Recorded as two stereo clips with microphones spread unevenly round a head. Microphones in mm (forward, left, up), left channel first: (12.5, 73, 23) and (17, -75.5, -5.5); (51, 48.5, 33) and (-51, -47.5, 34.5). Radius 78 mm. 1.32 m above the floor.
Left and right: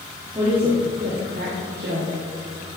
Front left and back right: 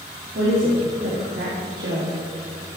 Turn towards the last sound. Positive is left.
turn(degrees=-110)